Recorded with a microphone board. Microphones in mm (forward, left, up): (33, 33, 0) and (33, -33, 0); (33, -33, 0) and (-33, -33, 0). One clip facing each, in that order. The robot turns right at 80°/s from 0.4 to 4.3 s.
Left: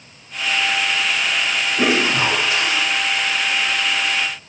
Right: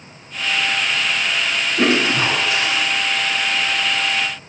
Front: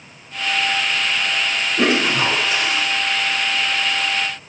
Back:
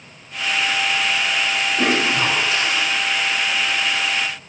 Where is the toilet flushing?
5° right, 1.1 m; by 2.8 s 80° left, 1.1 m.